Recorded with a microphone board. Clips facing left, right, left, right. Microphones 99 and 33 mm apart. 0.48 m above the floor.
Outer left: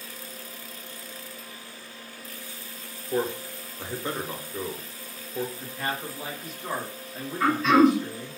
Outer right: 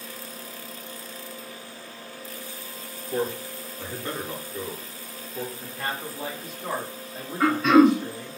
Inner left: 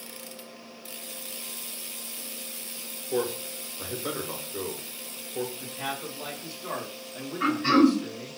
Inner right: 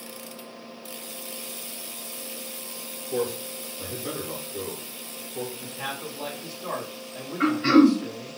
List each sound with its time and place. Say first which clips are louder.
3.1 s a man speaking: even, inner right 1 dB; 20° left (ahead or behind), 0.7 m
5.6 s a man speaking: even, even; 30° right (ahead or behind), 1.7 m
7.4 s throat clearing: outer right 2 dB, inner right 3 dB; 60° right (ahead or behind), 1.5 m